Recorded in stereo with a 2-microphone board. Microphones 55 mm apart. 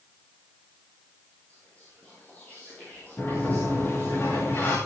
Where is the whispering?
25° left (ahead or behind), 4 m.